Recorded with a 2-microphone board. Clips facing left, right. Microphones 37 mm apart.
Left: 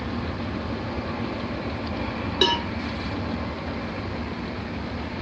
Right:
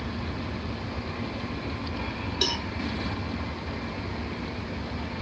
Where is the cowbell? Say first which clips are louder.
Left 8 dB; 40° left (ahead or behind).